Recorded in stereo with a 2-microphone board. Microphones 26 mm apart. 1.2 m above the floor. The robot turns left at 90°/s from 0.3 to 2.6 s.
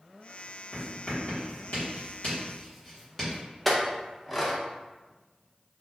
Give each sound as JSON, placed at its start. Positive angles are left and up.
{"t": 0.7, "sound": "writing", "side_deg": -5, "distance_m": 1.5}
{"t": 3.6, "sound": "a clink", "side_deg": 5, "distance_m": 0.6}